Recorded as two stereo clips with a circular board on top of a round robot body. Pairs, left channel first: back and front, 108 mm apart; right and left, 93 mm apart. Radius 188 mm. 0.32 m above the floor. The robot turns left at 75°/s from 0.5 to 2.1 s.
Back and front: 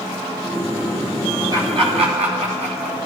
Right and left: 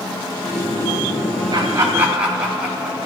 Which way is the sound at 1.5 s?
55° left.